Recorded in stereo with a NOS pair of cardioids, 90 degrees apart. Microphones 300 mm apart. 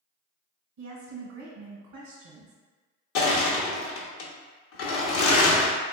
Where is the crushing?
50° left, 0.8 m.